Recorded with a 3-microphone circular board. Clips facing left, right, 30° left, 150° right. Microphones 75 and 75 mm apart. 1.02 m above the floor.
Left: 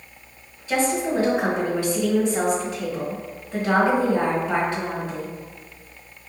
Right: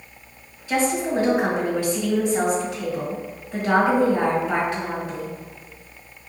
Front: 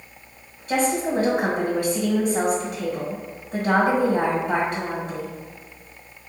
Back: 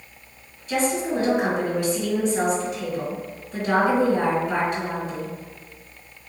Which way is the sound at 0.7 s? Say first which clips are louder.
Even, front 1 dB; 15° left.